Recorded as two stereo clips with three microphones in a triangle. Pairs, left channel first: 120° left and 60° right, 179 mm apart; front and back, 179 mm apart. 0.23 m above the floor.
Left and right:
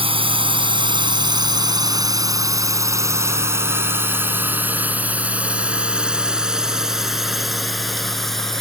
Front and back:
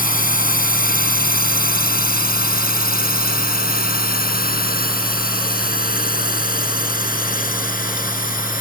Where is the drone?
10° right; by 8.6 s 35° left.